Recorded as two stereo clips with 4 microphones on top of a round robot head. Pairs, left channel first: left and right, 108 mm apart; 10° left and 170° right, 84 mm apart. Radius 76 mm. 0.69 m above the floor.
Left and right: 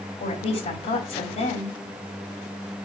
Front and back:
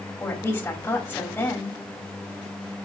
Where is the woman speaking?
75° left, 3.5 m.